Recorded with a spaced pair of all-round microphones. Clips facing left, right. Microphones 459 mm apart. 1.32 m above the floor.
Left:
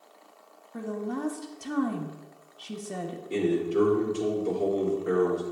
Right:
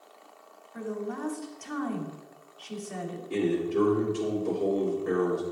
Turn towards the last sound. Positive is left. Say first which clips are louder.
# left 1 dB
turn(degrees=-10)  # may be behind; listen again after turning